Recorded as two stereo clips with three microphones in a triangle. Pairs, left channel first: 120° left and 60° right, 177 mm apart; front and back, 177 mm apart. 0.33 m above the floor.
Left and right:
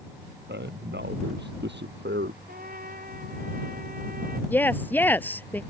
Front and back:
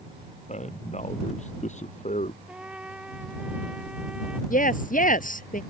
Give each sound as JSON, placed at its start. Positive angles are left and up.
{"t": 0.5, "sound": "a man speaking", "azimuth_deg": -50}
{"t": 2.5, "sound": "a trumpet", "azimuth_deg": -95}
{"t": 4.5, "sound": "a woman speaking", "azimuth_deg": 40}